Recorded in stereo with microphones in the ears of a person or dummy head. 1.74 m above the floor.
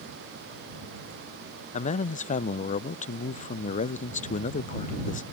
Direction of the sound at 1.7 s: 35° left (ahead or behind).